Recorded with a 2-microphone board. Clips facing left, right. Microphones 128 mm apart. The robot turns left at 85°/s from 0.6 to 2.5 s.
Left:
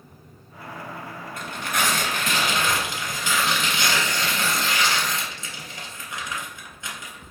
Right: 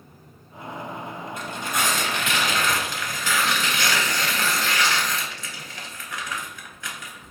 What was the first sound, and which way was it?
Tearing paper, 120° left.